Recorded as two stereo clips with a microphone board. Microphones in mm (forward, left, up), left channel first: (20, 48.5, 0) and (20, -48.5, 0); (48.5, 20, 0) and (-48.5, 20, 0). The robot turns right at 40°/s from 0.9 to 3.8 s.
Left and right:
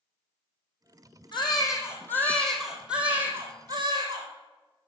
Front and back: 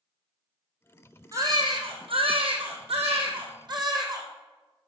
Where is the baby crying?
125° left, 2.5 m; by 4.3 s 135° right, 2.5 m.